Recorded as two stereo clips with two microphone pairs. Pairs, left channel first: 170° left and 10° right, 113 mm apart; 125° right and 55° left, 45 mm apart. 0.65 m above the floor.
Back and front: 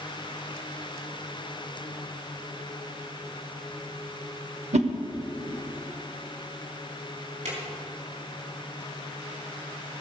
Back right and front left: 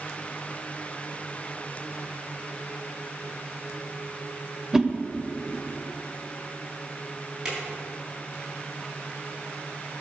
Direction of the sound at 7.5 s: 20° right.